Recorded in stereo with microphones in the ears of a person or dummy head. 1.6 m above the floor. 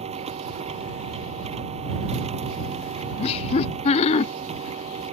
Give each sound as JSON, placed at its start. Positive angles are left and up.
{"t": 0.0, "sound": "a machine running", "side_deg": -30}
{"t": 3.2, "sound": "laughter", "side_deg": 40}